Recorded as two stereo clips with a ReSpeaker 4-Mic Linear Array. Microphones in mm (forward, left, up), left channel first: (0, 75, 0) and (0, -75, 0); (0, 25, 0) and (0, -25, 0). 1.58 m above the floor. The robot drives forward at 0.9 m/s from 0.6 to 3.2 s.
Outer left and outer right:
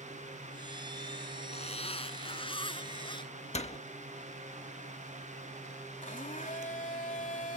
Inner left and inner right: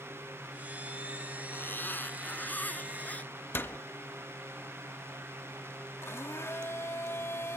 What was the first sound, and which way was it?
A zipper, 45° left (ahead or behind).